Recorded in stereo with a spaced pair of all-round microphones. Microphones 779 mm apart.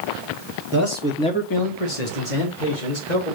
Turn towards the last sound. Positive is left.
turn(degrees=80)